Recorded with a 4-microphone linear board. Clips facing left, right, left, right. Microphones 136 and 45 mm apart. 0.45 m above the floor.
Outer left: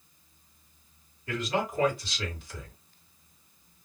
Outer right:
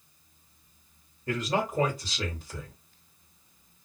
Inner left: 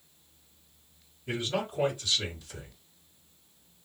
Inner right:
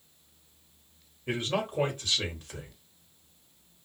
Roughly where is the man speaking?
Right.